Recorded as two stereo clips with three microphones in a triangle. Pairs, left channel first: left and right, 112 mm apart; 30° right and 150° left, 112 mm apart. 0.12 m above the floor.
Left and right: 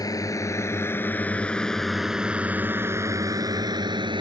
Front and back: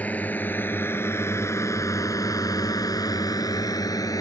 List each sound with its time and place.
0.0 s a drone: 45° left; by 4.2 s 75° right